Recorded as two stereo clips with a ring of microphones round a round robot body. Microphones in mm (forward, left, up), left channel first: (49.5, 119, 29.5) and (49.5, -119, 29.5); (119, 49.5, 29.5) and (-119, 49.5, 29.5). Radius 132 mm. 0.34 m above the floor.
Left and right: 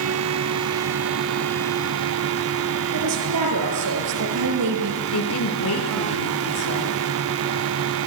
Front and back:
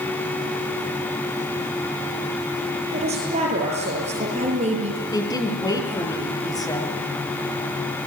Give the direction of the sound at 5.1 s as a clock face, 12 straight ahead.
10 o'clock.